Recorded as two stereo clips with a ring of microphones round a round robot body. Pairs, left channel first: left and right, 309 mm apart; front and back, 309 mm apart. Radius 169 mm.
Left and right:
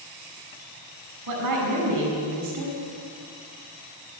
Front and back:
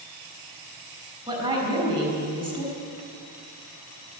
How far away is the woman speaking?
About 5.5 m.